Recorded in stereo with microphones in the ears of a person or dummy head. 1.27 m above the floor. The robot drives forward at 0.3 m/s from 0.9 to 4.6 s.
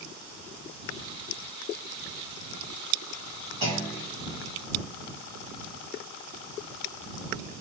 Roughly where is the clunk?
Right.